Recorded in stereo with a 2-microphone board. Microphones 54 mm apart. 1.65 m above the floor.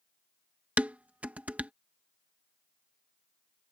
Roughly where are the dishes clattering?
Right.